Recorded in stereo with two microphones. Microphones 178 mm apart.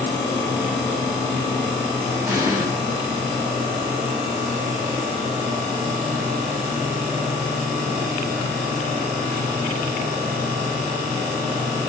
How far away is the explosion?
About 1.4 m.